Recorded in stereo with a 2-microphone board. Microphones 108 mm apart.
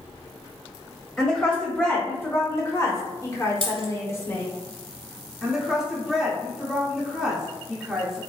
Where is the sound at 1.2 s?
10° left (ahead or behind), 1.2 m; by 4.5 s 25° left (ahead or behind), 1.1 m.